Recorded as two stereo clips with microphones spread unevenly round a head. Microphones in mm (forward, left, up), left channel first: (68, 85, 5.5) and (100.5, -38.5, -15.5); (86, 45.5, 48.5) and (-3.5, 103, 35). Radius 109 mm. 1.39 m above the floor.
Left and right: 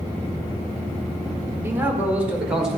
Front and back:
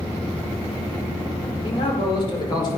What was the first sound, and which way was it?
A man speaking, 5° right.